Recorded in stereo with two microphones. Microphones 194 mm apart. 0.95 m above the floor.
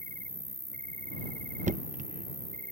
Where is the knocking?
40° right (ahead or behind).